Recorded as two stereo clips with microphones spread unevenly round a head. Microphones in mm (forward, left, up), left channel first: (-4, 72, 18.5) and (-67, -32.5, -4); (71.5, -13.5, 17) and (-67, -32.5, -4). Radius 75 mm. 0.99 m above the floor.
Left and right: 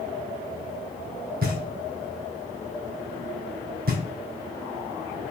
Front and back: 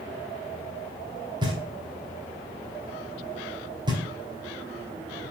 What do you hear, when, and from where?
1.4 s knocking: 110° right, 2.5 m